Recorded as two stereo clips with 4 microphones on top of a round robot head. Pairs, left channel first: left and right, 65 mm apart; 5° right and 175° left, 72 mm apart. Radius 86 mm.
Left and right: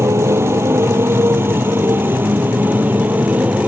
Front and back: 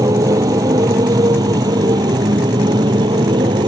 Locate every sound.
0.0 s a motorcycle: 140° right; by 3.7 s 155° right